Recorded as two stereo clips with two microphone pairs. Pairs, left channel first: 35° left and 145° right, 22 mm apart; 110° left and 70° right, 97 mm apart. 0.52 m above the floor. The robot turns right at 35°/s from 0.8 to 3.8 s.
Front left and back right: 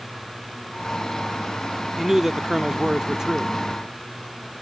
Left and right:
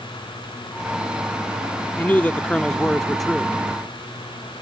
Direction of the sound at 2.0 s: 155° left.